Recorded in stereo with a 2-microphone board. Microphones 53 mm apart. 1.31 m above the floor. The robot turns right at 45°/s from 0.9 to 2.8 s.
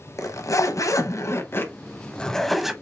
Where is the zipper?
105° left, 0.7 m; by 2.7 s 175° right, 0.7 m.